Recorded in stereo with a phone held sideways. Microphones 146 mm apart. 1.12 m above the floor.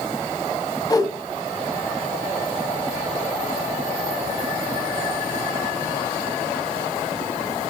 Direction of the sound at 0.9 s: 25° left (ahead or behind).